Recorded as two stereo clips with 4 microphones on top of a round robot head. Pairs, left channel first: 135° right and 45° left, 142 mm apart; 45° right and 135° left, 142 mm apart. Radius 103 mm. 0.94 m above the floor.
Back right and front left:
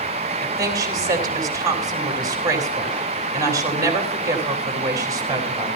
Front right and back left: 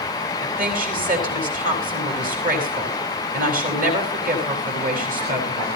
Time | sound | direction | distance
0.4 | a woman speaking | 110° left | 6 m